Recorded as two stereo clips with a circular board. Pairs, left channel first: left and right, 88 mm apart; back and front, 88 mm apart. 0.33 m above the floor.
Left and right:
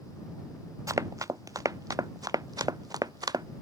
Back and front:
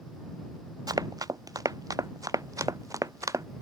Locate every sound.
0.9 s running footsteps: 40° right; by 3.5 s 50° right